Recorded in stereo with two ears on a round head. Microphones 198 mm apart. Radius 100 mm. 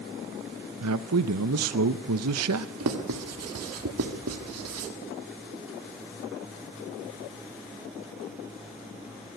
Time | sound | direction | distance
0.8 | a man speaking | 80° right | 0.7 m
2.8 | writing | 90° right | 1.8 m